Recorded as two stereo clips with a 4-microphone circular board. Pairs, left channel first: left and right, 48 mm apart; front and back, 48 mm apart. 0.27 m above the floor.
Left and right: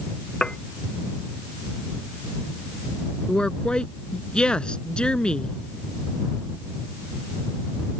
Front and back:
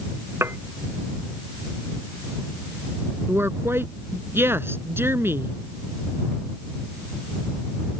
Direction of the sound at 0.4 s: 165° left.